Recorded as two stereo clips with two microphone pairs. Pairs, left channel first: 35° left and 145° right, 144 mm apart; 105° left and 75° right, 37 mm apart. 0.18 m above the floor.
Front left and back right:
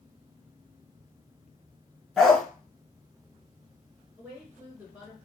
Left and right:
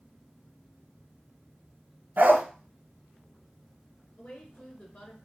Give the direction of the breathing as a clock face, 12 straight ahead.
No breathing in this recording.